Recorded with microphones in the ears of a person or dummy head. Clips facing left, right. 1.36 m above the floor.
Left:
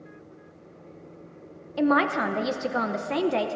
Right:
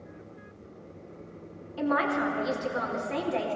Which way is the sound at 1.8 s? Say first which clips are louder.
Left 4 dB; 60° left (ahead or behind).